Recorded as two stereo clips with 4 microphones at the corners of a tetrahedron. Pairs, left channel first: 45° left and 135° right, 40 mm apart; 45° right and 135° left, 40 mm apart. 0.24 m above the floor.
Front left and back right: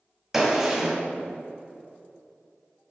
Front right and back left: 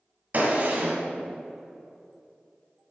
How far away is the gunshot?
About 1.4 m.